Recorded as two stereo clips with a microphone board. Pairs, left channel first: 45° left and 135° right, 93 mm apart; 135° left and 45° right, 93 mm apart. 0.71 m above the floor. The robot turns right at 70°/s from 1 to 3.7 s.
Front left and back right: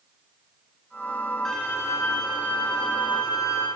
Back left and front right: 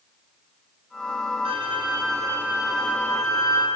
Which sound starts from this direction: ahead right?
A violin, at 1.4 s.